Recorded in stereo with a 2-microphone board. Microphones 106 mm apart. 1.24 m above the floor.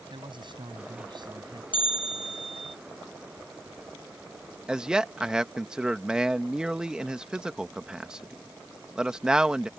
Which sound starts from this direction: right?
A man speaking, at 0.1 s.